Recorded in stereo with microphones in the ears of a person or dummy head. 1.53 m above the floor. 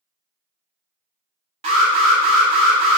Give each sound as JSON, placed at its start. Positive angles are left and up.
{"t": 1.6, "sound": "an alarm", "side_deg": -40, "distance_m": 1.0}